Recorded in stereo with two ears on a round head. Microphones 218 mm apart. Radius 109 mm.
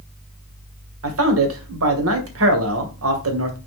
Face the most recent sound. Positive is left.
turn(degrees=-60)  # may be behind; listen again after turning